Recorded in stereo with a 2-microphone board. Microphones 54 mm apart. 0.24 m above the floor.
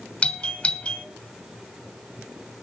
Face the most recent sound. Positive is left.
turn(degrees=20)  # may be behind; listen again after turning